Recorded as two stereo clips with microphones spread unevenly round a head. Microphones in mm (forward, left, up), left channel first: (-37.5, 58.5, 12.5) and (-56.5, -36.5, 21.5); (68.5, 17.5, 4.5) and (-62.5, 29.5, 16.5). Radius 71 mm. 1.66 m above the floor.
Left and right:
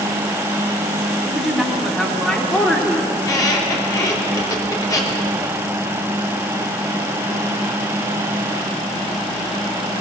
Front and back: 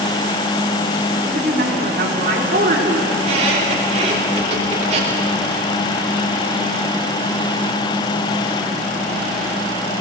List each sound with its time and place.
1.2 s a woman speaking: 175° left, 3.5 m; by 3.0 s 150° left, 4 m
3.1 s a squeak: 135° left, 3.5 m